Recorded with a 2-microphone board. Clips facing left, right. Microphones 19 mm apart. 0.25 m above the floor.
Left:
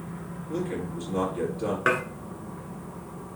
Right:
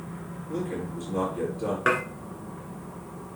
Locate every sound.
0.5 s a man speaking: 15° left (ahead or behind), 4.5 m
1.9 s dishes clattering: centre (ahead or behind), 1.9 m